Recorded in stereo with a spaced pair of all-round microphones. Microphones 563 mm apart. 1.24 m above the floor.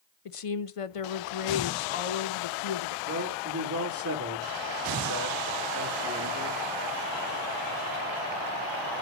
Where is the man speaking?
35° right (ahead or behind), 3 m.